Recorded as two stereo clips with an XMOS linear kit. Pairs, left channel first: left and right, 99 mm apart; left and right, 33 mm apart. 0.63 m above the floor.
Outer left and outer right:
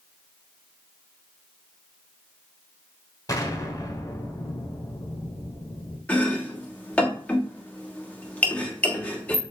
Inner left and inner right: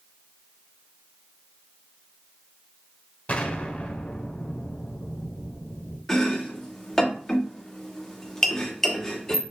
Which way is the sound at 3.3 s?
35° left (ahead or behind).